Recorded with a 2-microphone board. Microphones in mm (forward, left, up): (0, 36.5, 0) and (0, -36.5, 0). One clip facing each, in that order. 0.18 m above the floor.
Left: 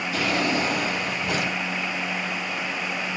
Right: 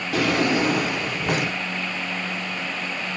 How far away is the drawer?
About 1.2 m.